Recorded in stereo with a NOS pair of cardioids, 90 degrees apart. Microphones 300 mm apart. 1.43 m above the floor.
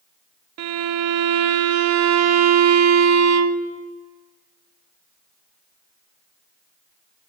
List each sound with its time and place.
0.6 s a violin: 60° right, 0.8 m